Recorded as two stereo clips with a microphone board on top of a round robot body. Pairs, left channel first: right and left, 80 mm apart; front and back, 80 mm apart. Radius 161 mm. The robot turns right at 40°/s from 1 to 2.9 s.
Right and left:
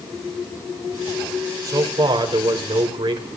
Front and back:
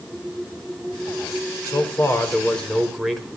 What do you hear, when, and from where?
1.6 s a man speaking: 45° left, 4 m; by 3.3 s 95° left, 4 m